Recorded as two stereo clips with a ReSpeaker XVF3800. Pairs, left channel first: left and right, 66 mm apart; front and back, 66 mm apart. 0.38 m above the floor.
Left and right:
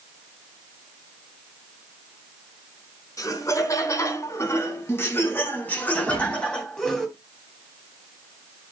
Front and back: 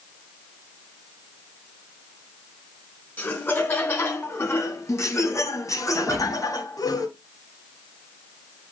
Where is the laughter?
55° left, 4.5 m; by 7.1 s 5° left, 3.5 m.